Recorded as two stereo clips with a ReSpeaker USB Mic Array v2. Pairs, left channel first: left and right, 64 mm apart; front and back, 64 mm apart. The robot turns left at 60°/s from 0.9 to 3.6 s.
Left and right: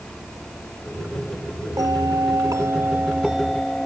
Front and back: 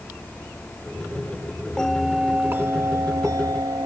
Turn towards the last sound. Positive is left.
turn(degrees=175)